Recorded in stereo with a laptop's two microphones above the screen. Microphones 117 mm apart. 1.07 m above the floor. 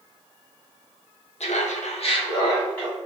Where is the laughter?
65° left (ahead or behind), 0.7 m; by 3.0 s 10° left (ahead or behind), 1.0 m.